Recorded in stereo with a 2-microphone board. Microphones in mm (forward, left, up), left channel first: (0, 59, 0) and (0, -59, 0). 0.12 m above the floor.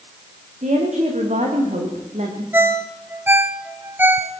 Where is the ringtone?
15° right (ahead or behind), 1.2 m.